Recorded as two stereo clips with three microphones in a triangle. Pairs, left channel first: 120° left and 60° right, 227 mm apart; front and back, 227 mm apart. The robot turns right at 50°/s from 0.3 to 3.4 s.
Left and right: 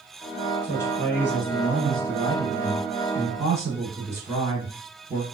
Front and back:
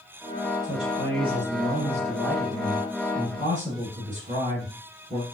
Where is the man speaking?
90° left, 2.5 m; by 5.2 s 135° right, 2.5 m.